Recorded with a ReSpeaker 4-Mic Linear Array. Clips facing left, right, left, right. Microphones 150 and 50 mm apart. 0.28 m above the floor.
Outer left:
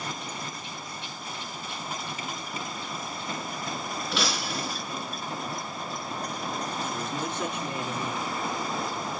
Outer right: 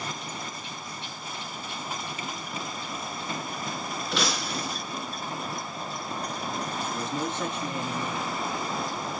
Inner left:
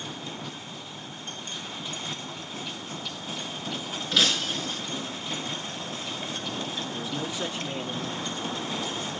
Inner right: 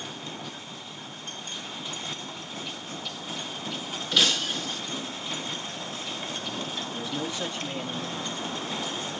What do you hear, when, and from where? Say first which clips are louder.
4.1 s breaking glass: outer right 1 dB, even; centre (ahead or behind), 2 m
6.9 s a man speaking: outer right 1 dB, even; 15° left (ahead or behind), 2.5 m